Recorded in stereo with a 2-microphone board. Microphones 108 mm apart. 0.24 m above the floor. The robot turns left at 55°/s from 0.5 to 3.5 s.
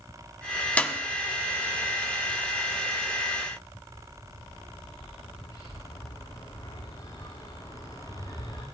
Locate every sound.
0.8 s a clap: 15° left (ahead or behind), 1.1 m; by 1.0 s 5° left (ahead or behind), 1.1 m
3.7 s a bird: 35° left (ahead or behind), 9 m